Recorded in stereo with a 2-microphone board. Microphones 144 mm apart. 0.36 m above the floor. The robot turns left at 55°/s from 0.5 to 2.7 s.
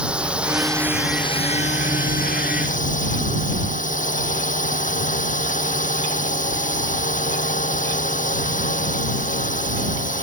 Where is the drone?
175° right; by 10.2 s 65° left.